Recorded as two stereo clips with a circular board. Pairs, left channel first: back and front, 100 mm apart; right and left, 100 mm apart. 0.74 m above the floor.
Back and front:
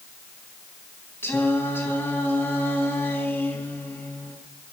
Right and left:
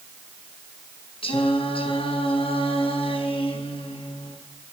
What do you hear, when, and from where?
1.2 s singing: 115° right, 4 m